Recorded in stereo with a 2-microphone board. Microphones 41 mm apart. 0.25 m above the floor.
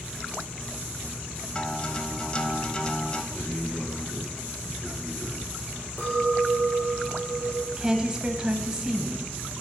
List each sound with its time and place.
1.6 s a guitar: 25° left (ahead or behind), 0.7 m
3.3 s a man speaking: 45° left (ahead or behind), 5 m
6.0 s a clink: 60° left (ahead or behind), 3.5 m
7.8 s a woman speaking: 15° right (ahead or behind), 1.1 m